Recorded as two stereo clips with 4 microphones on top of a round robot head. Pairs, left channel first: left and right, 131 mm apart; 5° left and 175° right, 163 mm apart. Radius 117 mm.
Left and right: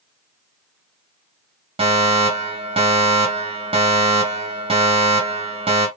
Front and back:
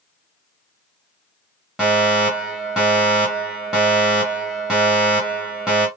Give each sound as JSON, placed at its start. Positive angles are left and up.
{"t": 1.8, "sound": "a fire alarm", "azimuth_deg": -90, "distance_m": 2.5}